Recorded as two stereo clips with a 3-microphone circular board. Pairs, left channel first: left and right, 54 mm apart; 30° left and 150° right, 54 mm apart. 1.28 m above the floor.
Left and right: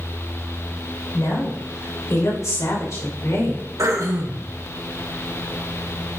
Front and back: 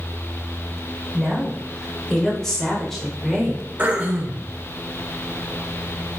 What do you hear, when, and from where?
1.1 s a woman speaking: 105° left, 5.5 m; by 3.6 s 125° left, 5 m
3.8 s throat clearing: 90° right, 2 m